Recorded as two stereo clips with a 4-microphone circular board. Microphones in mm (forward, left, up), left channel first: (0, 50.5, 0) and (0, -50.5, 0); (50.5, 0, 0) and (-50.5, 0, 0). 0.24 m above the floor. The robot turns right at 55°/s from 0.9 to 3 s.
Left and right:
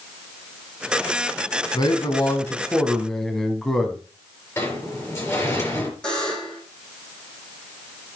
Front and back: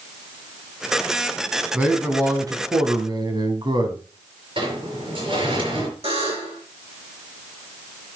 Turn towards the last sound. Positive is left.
turn(degrees=170)